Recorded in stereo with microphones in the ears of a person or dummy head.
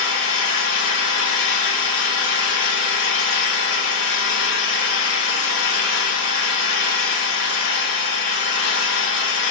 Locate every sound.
0.0 s an engine running: 65° left (ahead or behind), 2 m